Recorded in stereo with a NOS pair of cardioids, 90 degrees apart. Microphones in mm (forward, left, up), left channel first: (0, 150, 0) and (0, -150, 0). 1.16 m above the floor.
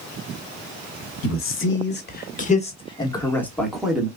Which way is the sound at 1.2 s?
50° left.